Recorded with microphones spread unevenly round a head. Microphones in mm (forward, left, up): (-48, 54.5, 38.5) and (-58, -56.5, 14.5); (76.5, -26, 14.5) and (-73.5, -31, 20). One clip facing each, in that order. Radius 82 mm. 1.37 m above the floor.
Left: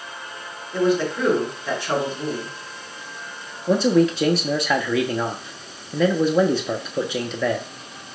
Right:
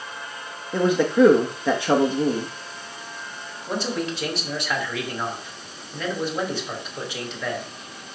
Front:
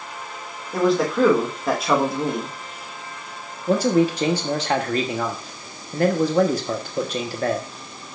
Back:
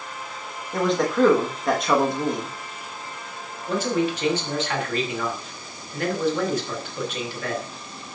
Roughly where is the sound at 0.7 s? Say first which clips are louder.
Right 2 dB, front 2 dB; right.